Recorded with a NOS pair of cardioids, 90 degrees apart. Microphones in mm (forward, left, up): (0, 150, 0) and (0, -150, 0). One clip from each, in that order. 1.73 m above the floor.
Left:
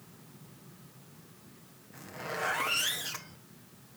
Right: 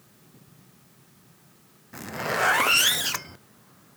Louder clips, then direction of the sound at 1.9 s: Right 10 dB; 55° right.